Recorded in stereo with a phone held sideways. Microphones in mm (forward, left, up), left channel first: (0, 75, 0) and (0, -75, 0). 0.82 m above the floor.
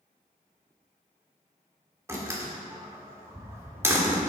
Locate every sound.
2.1 s a door slam: 20° right (ahead or behind), 1.8 m